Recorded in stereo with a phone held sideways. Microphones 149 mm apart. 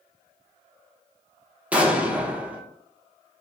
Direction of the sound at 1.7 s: 10° right (ahead or behind).